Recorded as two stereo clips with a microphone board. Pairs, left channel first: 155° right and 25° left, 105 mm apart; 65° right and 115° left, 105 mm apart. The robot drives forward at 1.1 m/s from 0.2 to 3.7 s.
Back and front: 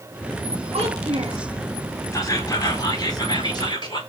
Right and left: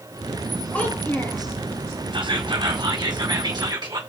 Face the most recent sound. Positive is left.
turn(degrees=160)